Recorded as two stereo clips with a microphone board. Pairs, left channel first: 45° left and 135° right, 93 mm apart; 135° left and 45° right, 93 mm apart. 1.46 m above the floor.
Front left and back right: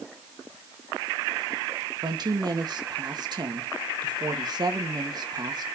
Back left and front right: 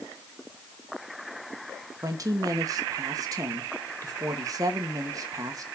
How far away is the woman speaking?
About 1.7 m.